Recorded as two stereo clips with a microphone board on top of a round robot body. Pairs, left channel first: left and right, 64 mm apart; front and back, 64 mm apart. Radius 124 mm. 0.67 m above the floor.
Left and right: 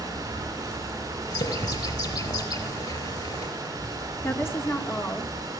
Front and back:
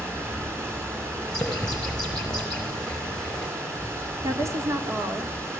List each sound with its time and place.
0.0 s running water: 130° right, 8.5 m
1.3 s a bird: 80° left, 3 m
4.2 s a woman speaking: 145° left, 2.5 m